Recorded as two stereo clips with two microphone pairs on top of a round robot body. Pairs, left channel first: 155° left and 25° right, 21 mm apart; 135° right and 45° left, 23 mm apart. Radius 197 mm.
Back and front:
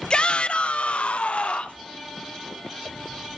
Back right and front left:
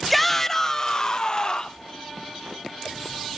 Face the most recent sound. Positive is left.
turn(degrees=165)